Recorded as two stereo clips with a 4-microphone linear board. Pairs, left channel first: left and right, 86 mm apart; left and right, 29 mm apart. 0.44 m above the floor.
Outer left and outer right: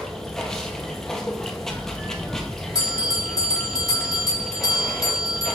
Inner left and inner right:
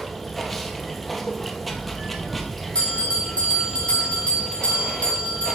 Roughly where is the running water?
Centre.